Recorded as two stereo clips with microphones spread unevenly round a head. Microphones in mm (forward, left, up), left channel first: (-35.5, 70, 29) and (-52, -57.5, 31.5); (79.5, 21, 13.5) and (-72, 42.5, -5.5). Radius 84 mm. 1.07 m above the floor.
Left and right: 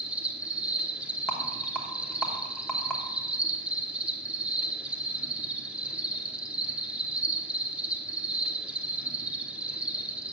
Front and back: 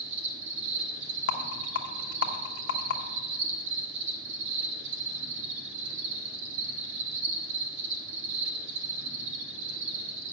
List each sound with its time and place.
0.0 s an insect: straight behind, 1.1 m
1.3 s a rattle: 5° right, 1.0 m